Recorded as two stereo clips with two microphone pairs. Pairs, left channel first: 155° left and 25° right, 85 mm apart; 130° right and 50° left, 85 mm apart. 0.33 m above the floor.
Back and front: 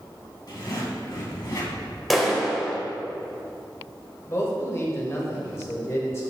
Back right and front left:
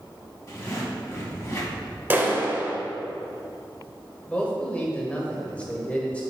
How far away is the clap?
About 1.0 m.